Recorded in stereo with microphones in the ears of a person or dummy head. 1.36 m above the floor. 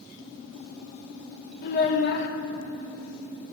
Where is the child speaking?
50° left (ahead or behind), 0.9 m.